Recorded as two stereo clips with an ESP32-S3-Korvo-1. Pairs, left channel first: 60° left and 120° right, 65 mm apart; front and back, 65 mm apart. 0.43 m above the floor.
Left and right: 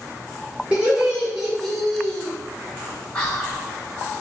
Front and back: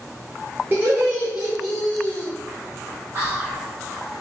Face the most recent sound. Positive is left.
turn(degrees=125)